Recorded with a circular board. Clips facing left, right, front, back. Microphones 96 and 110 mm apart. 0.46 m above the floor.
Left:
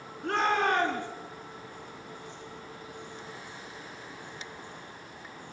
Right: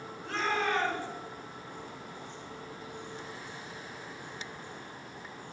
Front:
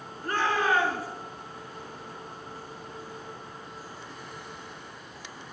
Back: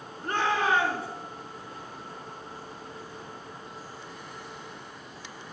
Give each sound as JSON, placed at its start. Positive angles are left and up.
{"t": 0.2, "sound": "a shout", "azimuth_deg": 115, "distance_m": 5.0}